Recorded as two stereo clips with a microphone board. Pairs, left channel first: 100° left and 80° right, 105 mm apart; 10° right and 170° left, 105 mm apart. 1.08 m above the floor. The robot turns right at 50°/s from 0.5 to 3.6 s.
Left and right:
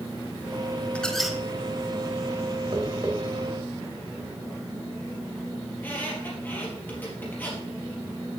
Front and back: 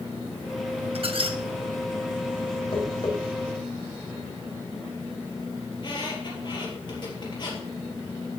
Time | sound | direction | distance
0.9 | a squeak | straight behind | 1.1 m
2.7 | tapping | 40° right | 4 m
5.7 | a squeak | 30° left | 4 m